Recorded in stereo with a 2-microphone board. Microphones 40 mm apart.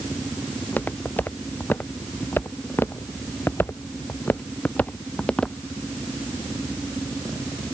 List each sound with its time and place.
0.6 s footsteps: 45° left (ahead or behind); by 5.6 s 20° left (ahead or behind)